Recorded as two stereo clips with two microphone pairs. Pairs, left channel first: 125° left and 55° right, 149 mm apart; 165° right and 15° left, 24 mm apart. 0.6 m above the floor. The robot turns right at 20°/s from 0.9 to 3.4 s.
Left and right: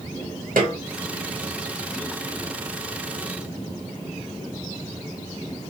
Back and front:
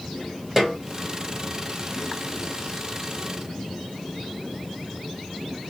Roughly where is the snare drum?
Ahead right.